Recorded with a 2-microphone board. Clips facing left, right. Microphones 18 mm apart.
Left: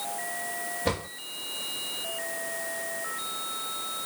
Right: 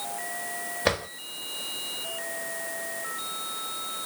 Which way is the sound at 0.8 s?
65° right (ahead or behind).